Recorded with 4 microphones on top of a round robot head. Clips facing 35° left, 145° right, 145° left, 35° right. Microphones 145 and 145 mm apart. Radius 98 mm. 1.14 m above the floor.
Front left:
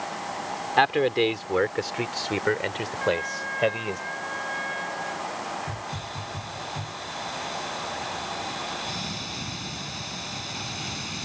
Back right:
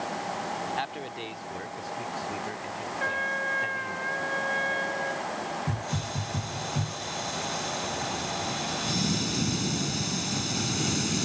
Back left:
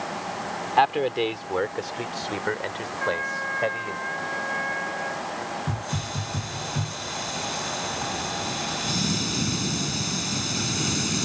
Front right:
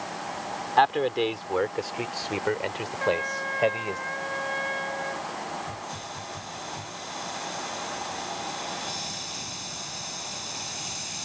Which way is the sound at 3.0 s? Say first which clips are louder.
Front left 9 dB, front right 3 dB; 100° right.